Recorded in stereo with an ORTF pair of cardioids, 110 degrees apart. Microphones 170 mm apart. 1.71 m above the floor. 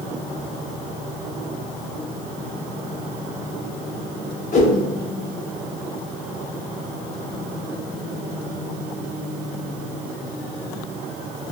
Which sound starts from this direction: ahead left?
A whoosh, at 4.5 s.